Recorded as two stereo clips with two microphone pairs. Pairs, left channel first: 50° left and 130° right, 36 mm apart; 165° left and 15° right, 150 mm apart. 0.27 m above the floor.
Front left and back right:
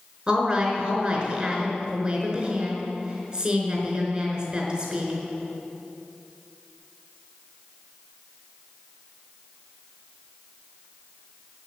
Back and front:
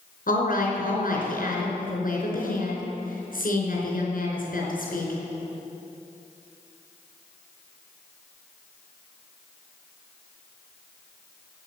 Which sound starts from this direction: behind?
A woman speaking, at 0.3 s.